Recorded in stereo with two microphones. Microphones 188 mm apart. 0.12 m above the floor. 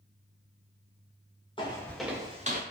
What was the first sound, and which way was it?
Footsteps, 25° left (ahead or behind).